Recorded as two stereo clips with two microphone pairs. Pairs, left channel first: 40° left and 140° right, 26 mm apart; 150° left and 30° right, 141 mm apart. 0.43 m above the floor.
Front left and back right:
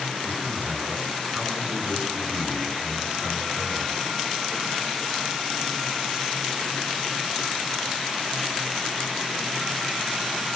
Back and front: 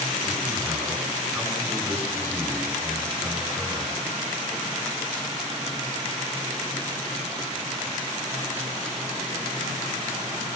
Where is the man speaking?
115° right, 5.5 m.